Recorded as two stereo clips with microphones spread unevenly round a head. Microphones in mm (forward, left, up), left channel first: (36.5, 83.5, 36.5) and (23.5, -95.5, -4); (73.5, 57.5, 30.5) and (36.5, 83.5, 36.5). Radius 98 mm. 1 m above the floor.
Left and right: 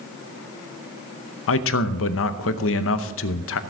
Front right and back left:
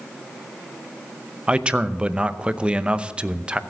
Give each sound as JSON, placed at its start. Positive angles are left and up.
{"t": 1.5, "sound": "a man speaking", "azimuth_deg": 75, "distance_m": 0.8}